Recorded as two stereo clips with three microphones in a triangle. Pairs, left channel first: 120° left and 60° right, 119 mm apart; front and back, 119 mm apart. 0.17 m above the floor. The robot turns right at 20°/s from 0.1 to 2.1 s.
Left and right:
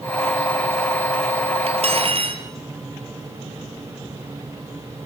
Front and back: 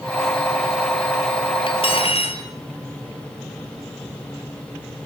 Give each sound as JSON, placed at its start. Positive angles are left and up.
{"t": 1.7, "sound": "cutlery clinking", "azimuth_deg": -35, "distance_m": 2.5}